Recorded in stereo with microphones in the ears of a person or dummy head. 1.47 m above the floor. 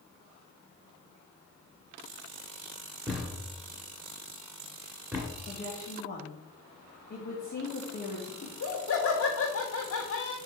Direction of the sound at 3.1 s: 5° right (ahead or behind).